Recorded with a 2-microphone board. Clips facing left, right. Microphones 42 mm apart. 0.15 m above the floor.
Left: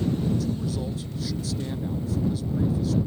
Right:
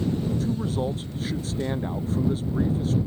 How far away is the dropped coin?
No dropped coin in this recording.